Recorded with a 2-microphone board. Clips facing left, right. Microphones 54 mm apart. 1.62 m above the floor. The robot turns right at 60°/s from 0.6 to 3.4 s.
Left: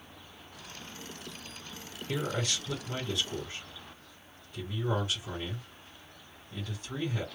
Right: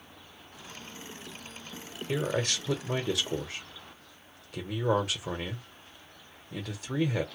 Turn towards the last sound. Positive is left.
turn(degrees=-75)  # may be behind; listen again after turning